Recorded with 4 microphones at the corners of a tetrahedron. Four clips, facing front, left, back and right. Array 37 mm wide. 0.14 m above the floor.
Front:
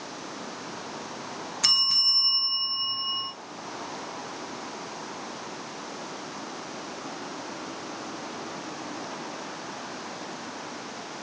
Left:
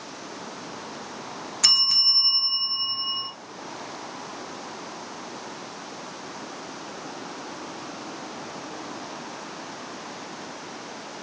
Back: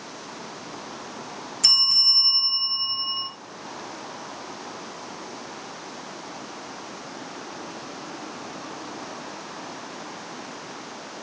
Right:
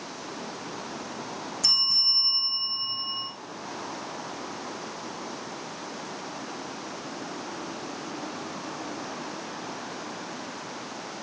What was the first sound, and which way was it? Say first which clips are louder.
A bell: left 3 dB, back 4 dB; 70° left.